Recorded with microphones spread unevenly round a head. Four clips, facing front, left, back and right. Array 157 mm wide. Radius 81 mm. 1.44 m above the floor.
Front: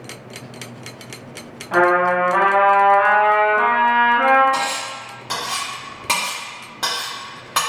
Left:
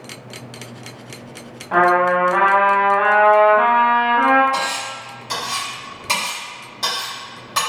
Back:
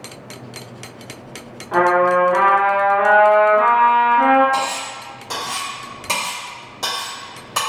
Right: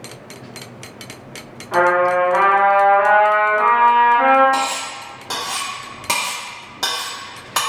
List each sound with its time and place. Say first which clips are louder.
1.7 s a trumpet: even, back 1 dB; 65° left, 1.1 m
4.5 s cutlery clinking: right 2 dB, back 1 dB; 40° right, 1.4 m